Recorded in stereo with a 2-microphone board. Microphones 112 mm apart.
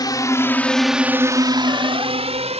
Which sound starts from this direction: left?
A drone, at 0.0 s.